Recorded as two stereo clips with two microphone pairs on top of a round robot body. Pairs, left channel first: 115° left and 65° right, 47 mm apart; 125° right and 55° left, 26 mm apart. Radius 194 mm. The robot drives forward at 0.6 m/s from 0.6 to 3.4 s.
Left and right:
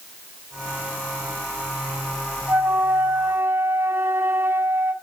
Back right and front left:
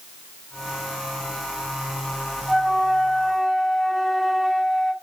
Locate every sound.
2.5 s a flute: 30° right, 2.5 m; by 4.9 s 40° right, 2.0 m